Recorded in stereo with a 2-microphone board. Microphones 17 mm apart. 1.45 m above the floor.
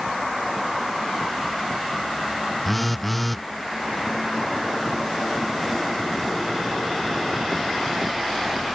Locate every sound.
2.6 s a phone buzzing: 5° left (ahead or behind)